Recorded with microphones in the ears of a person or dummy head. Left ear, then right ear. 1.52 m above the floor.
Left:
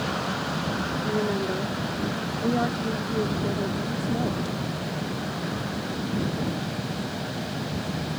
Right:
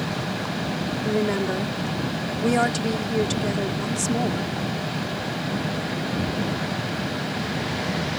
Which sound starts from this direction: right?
A woman speaking, at 1.1 s.